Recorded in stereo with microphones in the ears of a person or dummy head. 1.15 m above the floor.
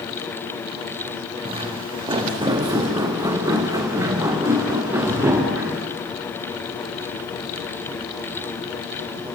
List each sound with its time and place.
1.4 s footsteps: 25° right (ahead or behind), 3.5 m; by 5.8 s 5° right (ahead or behind), 7 m